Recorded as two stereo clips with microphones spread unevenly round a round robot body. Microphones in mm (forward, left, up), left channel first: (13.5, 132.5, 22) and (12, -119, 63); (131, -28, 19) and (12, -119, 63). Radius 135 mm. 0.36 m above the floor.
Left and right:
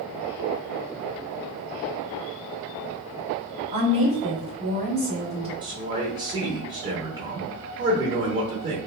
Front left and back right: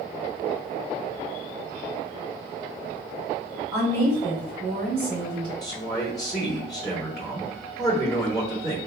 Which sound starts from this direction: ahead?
A man speaking, at 5.6 s.